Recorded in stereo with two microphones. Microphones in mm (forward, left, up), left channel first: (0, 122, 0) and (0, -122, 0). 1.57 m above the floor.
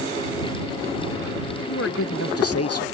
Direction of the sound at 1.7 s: 60° left (ahead or behind).